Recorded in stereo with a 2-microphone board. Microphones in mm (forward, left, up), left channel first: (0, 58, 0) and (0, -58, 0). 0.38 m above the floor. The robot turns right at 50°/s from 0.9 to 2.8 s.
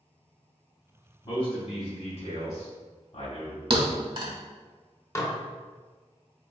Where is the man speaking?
40° left (ahead or behind), 1.9 m; by 3.6 s 55° left (ahead or behind), 1.9 m.